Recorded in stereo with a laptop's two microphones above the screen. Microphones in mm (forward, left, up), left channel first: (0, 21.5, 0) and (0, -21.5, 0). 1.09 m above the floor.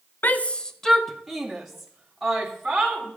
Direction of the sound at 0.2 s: 45° left (ahead or behind).